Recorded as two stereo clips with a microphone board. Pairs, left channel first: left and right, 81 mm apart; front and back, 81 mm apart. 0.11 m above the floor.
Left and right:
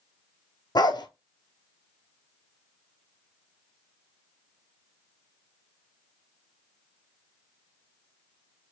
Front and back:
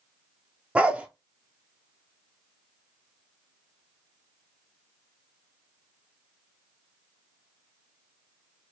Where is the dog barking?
110° left, 0.5 m.